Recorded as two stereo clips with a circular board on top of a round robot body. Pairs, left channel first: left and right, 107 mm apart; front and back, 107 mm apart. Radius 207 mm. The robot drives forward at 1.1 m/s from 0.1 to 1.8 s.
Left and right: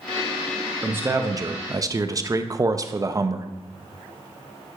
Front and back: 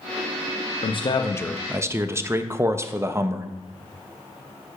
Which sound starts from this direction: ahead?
A man speaking, at 0.8 s.